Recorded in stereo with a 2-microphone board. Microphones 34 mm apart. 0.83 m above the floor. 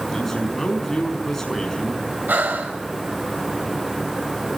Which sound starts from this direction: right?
Breathing, at 2.3 s.